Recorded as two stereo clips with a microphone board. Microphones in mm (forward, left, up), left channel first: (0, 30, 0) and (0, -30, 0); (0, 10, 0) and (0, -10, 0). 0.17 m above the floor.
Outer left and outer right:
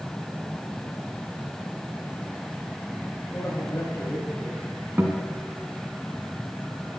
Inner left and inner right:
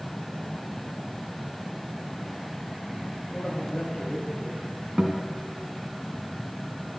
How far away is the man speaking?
About 2.5 m.